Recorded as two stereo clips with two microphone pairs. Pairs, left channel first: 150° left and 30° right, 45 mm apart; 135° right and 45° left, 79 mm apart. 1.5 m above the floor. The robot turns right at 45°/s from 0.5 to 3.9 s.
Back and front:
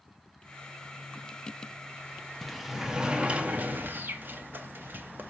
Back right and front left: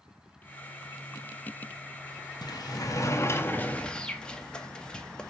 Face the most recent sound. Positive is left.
turn(degrees=-60)